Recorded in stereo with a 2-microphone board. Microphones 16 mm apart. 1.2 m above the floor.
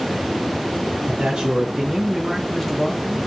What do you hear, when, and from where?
1.1 s a man speaking: 55° right (ahead or behind), 0.9 m; by 3.2 s 15° left (ahead or behind), 1.1 m